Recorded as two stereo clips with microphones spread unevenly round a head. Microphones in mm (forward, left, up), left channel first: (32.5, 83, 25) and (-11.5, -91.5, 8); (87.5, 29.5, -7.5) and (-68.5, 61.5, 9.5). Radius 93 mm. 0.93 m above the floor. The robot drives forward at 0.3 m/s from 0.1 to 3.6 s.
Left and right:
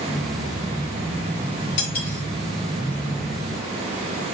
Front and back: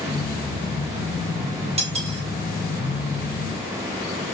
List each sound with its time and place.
1.8 s cutlery clinking: 115° left, 1.8 m; by 2.2 s 120° left, 1.9 m